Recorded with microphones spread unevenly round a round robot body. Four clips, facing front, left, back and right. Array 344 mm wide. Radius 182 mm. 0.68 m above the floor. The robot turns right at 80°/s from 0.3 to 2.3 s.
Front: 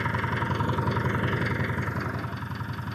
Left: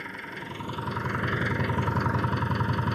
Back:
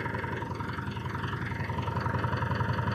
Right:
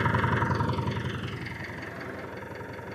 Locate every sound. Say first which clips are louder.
0.0 s an engine running: right 12 dB, front 5 dB; 50° right; by 3.0 s 110° left